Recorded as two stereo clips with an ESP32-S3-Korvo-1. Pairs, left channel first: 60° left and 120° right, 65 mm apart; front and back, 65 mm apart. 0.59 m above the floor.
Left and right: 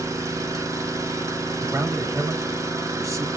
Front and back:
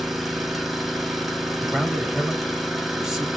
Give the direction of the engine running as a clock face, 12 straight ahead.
3 o'clock.